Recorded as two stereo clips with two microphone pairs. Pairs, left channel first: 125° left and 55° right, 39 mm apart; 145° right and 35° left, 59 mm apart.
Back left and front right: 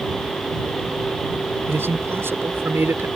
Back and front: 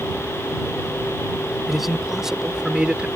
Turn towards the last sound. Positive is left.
turn(degrees=-40)